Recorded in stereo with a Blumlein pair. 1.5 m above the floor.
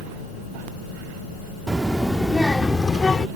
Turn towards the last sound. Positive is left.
turn(degrees=15)